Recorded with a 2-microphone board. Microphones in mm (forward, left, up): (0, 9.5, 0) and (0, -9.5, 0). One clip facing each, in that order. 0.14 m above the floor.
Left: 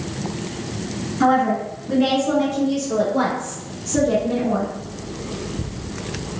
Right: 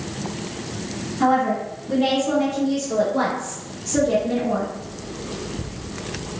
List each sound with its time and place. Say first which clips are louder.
1.2 s a woman speaking: left 2 dB; 30° left (ahead or behind), 1.9 m; by 4.7 s 35° right (ahead or behind), 1.9 m